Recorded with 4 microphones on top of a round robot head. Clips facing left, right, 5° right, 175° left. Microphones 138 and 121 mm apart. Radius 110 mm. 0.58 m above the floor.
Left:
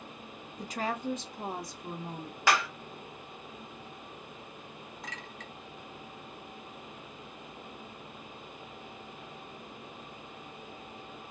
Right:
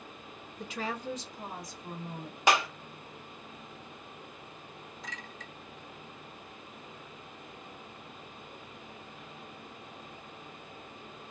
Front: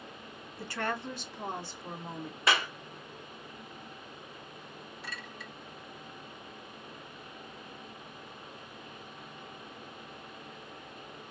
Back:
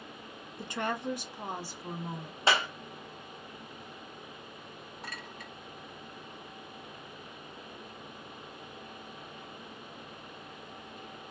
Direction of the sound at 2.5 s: 145° right.